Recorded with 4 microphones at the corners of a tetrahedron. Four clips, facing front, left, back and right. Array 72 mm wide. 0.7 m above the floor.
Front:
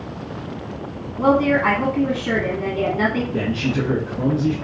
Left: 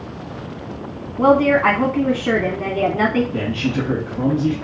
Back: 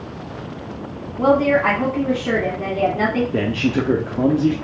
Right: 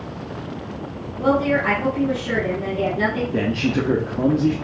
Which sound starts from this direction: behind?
A man speaking, at 3.3 s.